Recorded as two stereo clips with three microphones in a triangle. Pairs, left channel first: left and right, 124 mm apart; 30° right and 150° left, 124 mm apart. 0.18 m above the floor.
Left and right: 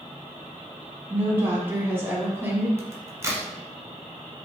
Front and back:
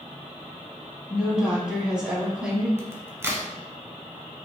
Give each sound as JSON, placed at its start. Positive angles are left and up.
{"t": 1.1, "sound": "a woman speaking", "azimuth_deg": -135, "distance_m": 1.2}
{"t": 2.8, "sound": "a crack", "azimuth_deg": -145, "distance_m": 1.0}